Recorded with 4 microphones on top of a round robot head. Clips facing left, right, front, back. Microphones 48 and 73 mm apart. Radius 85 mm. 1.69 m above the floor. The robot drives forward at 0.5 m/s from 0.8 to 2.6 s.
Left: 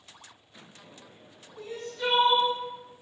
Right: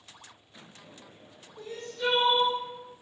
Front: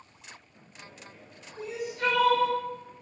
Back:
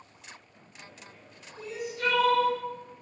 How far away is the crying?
About 1.4 m.